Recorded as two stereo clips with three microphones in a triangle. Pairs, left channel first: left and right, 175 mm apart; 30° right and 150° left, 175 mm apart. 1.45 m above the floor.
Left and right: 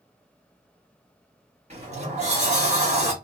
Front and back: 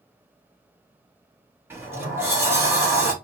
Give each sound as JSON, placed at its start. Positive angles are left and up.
{"t": 1.7, "sound": "a sliding door", "azimuth_deg": -135, "distance_m": 1.2}